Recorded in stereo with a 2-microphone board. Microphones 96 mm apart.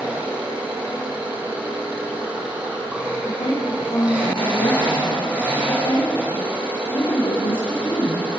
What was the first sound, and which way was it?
An engine running, 10° right (ahead or behind).